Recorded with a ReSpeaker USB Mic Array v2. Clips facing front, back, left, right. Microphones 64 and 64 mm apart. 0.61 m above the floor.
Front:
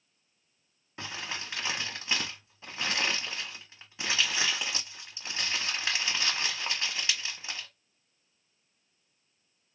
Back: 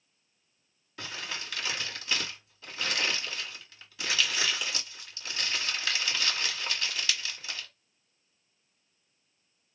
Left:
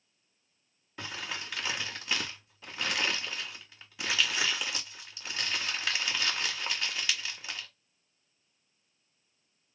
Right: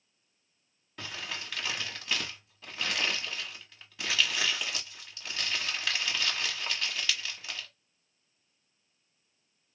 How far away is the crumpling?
About 1.3 m.